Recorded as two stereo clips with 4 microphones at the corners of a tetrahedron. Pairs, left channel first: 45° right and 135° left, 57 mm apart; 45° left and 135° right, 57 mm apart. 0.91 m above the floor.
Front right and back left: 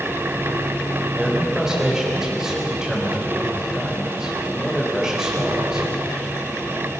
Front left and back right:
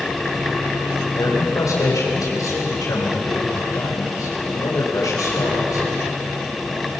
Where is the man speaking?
55° left, 4 m.